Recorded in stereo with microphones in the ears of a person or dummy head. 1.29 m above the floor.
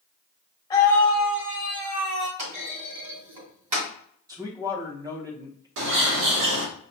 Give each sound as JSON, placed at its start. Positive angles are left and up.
{"t": 0.7, "sound": "a scream", "side_deg": 15, "distance_m": 1.4}
{"t": 2.4, "sound": "a clunk", "side_deg": -35, "distance_m": 1.6}
{"t": 4.3, "sound": "a man speaking", "side_deg": -25, "distance_m": 0.9}
{"t": 5.8, "sound": "a bird", "side_deg": -75, "distance_m": 1.1}